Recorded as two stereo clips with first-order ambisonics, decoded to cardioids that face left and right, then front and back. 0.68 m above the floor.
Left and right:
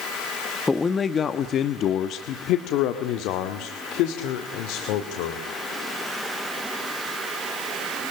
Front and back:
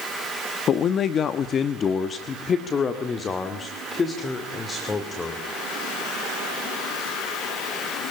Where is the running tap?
I don't hear a running tap.